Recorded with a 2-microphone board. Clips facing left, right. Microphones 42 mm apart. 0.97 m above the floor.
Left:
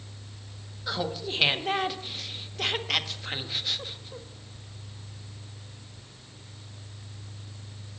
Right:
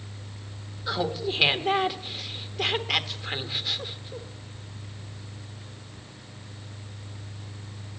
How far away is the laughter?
About 1.0 m.